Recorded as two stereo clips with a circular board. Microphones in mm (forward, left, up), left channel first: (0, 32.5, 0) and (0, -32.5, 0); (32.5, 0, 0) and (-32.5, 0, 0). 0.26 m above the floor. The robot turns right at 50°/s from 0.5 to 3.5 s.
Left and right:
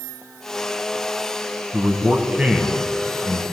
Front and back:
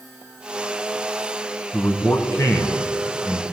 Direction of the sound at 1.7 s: 55° right.